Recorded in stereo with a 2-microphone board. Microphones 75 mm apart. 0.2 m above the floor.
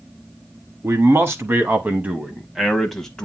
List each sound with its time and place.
0.8 s a man speaking: 40° right (ahead or behind), 1.7 m; by 3.3 s 10° left (ahead or behind), 1.3 m